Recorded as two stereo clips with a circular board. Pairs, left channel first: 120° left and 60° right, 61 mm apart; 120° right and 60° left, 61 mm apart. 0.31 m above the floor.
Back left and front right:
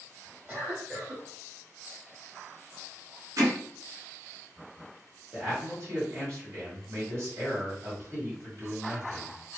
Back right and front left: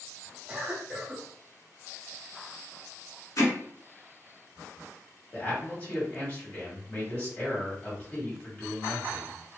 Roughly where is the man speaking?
Right.